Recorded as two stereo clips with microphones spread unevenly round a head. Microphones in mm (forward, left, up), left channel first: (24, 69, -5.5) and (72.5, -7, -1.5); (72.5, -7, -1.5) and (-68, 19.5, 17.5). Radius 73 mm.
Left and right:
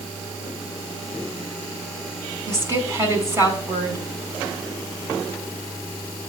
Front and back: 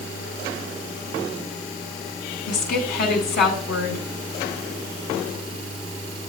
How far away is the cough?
I don't hear a cough.